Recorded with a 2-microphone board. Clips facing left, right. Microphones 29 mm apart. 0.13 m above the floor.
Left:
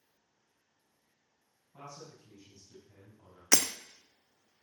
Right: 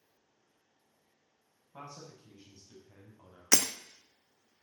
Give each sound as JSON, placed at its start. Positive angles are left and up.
{"t": 1.7, "sound": "a man speaking", "side_deg": -50, "distance_m": 7.5}
{"t": 3.5, "sound": "breaking glass", "side_deg": 0, "distance_m": 0.8}